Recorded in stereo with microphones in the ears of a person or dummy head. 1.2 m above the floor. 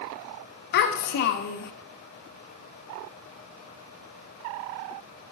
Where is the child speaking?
55° left (ahead or behind), 0.7 m.